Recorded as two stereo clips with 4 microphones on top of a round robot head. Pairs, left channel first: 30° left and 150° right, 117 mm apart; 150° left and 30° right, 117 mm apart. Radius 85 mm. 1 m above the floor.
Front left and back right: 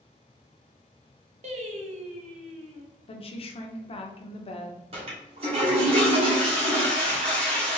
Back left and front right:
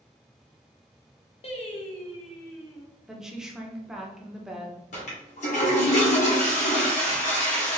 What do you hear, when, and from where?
1.4 s singing: 175° right, 0.9 m
3.1 s a woman speaking: 50° left, 0.8 m
4.9 s a toilet flushing: 170° left, 1.5 m